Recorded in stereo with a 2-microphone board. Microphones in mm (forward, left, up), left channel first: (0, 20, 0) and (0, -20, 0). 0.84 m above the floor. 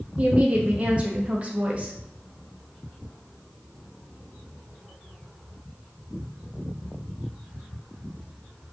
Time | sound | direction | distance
0.2 | a woman speaking | 30° right (ahead or behind) | 0.6 m